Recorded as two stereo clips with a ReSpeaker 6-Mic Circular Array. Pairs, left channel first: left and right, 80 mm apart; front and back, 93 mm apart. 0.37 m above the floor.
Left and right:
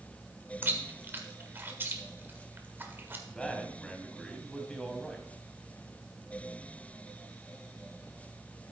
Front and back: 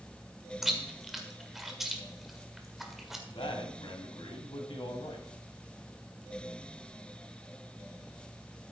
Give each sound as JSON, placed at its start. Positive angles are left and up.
{"t": 0.6, "sound": "chewing", "azimuth_deg": -95, "distance_m": 1.6}
{"t": 3.3, "sound": "a man speaking", "azimuth_deg": 10, "distance_m": 1.9}